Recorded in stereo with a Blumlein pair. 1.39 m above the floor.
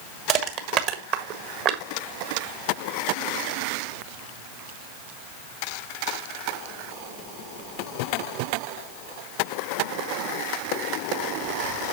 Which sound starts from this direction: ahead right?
Crushing, at 0.3 s.